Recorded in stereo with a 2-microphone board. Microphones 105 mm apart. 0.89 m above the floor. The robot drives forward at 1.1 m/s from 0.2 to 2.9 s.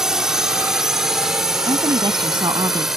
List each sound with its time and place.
0.0 s a drone: 5° right (ahead or behind)
1.7 s a woman speaking: 50° right (ahead or behind); by 2.9 s 40° right (ahead or behind)